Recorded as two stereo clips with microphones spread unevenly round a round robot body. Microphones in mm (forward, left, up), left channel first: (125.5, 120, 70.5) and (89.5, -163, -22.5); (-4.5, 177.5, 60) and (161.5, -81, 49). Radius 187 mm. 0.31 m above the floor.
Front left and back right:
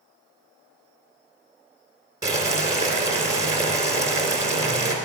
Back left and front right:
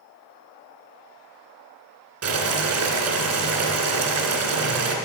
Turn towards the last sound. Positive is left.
turn(degrees=-20)